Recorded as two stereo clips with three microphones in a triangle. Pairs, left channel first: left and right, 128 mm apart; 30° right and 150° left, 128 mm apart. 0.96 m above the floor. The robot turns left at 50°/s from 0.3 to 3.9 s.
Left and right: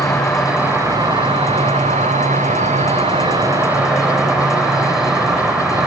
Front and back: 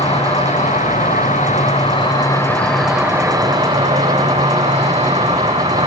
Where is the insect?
5° left, 2.5 m; by 5.9 s 175° right, 2.5 m.